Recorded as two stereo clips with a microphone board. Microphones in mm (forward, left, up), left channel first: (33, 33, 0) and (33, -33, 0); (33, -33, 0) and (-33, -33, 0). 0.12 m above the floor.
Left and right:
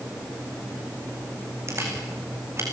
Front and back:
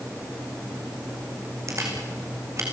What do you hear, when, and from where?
1.7 s a camera shutter: 135° right, 5.5 m